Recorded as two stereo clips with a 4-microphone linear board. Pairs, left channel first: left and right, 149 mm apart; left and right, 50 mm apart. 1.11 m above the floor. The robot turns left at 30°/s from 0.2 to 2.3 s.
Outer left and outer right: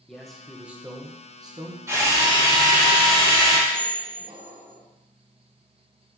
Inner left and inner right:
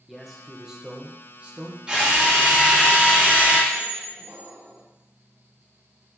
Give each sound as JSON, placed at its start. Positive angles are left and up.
{"t": 0.1, "sound": "a man speaking", "azimuth_deg": 5, "distance_m": 1.0}
{"t": 1.9, "sound": "a drill", "side_deg": -20, "distance_m": 2.5}
{"t": 3.7, "sound": "a squeak", "side_deg": -70, "distance_m": 1.7}